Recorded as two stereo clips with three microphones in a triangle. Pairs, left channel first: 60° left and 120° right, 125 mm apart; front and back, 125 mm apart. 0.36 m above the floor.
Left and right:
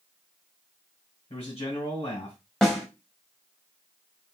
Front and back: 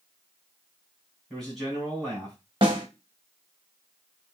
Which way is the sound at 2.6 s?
145° left.